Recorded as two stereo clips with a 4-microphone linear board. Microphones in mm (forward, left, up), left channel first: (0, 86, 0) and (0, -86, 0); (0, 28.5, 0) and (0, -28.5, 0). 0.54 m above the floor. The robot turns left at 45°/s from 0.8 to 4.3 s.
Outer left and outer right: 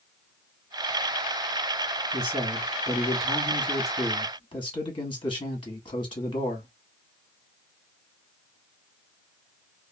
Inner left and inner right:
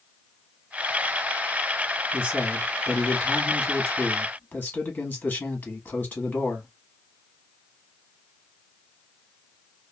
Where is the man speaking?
130° right, 1.4 m; by 6.7 s 130° left, 1.4 m.